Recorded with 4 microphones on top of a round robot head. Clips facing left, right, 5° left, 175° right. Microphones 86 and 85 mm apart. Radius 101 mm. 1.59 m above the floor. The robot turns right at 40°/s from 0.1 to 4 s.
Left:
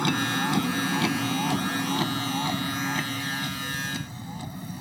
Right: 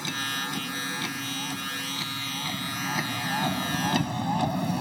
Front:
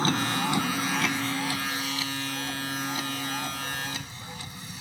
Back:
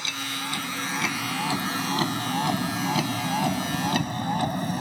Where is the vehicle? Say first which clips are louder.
Left 7 dB, front 7 dB; 55° left; by 4.8 s 120° right.